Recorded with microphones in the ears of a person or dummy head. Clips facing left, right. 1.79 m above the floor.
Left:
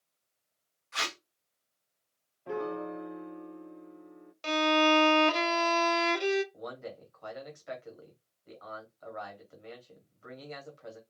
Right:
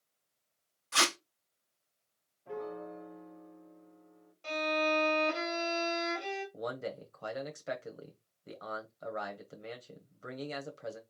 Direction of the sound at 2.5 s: 65° left (ahead or behind).